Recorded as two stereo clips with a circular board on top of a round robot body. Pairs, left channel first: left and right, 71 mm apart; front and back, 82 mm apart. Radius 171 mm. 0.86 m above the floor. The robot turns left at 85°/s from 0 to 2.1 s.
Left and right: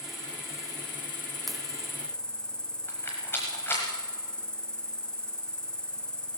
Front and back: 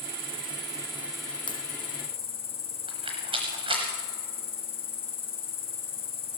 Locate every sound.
0.0 s an insect: 170° right, 0.9 m; by 6.4 s 10° left, 0.9 m
1.5 s a crack: 5° left, 1.2 m; by 1.6 s 10° right, 1.2 m
2.9 s a rattle: 155° left, 0.8 m